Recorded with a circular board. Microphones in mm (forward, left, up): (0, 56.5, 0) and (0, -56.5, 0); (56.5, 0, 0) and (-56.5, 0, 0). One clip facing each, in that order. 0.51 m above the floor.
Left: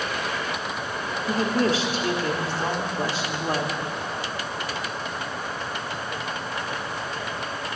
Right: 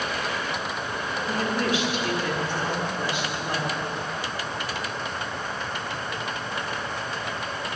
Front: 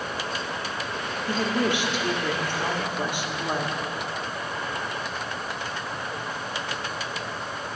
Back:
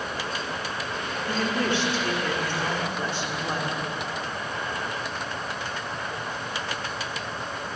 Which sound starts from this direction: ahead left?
A woman speaking, at 1.3 s.